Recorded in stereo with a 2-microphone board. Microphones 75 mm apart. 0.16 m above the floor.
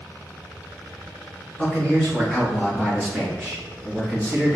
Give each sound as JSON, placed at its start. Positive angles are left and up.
{"t": 1.6, "sound": "a man speaking", "side_deg": 15, "distance_m": 1.5}